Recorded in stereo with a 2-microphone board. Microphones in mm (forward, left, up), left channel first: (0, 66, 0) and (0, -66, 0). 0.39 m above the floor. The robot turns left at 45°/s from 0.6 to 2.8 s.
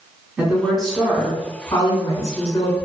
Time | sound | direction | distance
0.4 | a woman speaking | 170° right | 1.2 m